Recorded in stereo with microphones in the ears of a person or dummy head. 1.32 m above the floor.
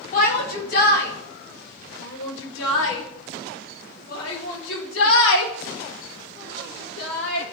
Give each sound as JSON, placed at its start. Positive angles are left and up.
{"t": 0.1, "sound": "a shout", "side_deg": 45, "distance_m": 2.0}